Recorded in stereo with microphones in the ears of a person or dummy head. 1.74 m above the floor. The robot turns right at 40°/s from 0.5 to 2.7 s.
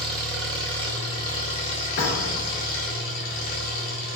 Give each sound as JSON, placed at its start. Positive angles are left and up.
{"t": 0.0, "sound": "an engine running", "azimuth_deg": 0, "distance_m": 2.5}
{"t": 2.0, "sound": "a thud", "side_deg": 50, "distance_m": 2.5}